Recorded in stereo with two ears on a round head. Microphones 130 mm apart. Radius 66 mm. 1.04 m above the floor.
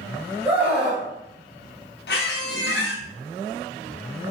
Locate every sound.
0.5 s a scream: 15° right (ahead or behind), 0.7 m
2.1 s a squeak: 75° left (ahead or behind), 0.5 m